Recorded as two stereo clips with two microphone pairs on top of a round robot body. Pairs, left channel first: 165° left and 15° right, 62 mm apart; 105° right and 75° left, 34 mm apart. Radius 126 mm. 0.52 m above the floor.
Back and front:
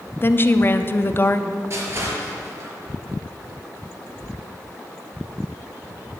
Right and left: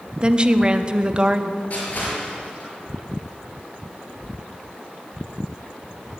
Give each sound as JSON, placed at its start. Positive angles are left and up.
{"t": 0.2, "sound": "a woman speaking", "azimuth_deg": 115, "distance_m": 0.9}
{"t": 1.7, "sound": "crushing", "azimuth_deg": -60, "distance_m": 5.0}